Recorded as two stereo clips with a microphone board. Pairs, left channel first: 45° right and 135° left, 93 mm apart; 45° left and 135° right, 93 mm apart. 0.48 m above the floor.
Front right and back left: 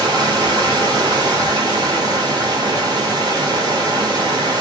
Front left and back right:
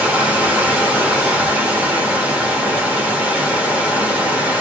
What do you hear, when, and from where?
0.0 s running water: 160° left, 1.1 m